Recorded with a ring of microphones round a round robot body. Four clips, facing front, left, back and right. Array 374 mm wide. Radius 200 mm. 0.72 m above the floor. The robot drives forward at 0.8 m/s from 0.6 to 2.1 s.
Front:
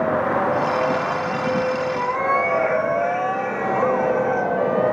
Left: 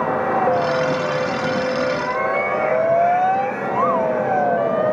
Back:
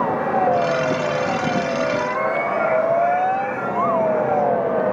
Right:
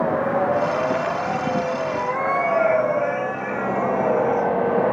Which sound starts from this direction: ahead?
A cat meowing, at 1.9 s.